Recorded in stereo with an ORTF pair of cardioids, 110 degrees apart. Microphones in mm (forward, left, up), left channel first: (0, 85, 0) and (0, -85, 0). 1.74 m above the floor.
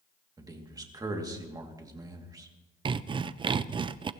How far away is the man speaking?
About 2.5 m.